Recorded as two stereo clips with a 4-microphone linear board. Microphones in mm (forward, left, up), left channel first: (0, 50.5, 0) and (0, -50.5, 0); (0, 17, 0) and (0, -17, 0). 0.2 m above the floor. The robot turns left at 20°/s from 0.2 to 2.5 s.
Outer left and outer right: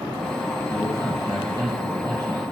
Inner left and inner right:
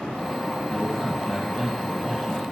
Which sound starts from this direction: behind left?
A man speaking, at 0.7 s.